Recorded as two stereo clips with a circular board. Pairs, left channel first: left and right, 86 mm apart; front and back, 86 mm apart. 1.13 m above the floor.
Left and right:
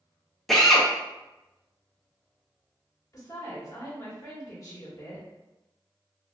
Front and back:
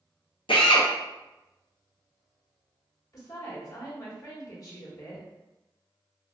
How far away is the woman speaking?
About 1.4 m.